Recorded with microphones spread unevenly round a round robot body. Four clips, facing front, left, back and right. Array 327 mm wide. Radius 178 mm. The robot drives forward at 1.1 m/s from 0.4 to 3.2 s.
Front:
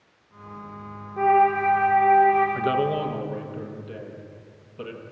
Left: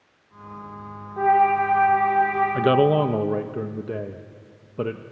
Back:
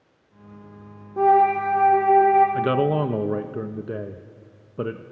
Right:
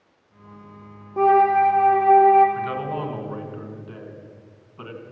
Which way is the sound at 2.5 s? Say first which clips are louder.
Left 9 dB, back 2 dB; 95° left.